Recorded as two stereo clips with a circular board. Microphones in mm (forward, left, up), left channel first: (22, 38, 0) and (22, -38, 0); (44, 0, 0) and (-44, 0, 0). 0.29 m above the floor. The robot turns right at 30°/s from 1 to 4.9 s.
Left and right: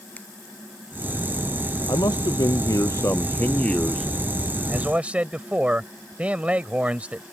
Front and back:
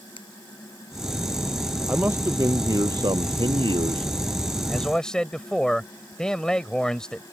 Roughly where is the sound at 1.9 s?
Left.